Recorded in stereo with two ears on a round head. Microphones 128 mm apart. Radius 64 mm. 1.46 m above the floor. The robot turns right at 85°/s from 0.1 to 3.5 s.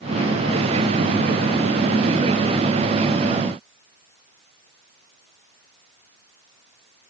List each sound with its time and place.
Only background noise.